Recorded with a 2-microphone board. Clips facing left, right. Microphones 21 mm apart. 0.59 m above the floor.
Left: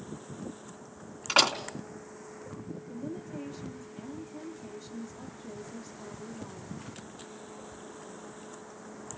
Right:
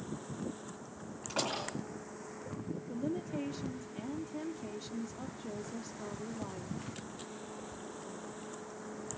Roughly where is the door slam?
Left.